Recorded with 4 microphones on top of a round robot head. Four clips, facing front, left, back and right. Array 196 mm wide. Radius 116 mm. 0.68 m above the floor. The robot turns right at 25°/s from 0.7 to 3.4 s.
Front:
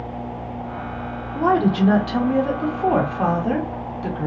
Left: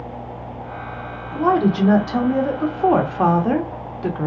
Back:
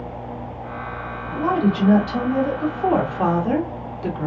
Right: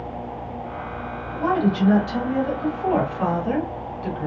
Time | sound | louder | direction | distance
1.4 | a woman speaking | left 4 dB, front 2 dB | 50° left | 1.0 m